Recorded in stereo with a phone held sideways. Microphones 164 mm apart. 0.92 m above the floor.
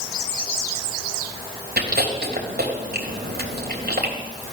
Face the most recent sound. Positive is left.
turn(degrees=-80)